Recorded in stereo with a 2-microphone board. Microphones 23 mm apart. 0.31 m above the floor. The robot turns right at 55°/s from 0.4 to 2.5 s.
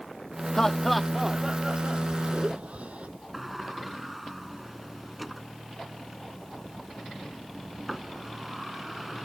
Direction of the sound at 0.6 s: 25° left (ahead or behind).